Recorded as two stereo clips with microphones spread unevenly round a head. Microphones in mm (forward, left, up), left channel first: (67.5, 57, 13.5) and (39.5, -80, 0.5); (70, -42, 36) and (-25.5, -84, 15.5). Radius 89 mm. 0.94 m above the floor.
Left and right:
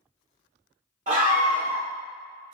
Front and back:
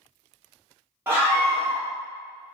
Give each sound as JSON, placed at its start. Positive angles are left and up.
{"t": 1.1, "sound": "a scream", "azimuth_deg": -95, "distance_m": 1.7}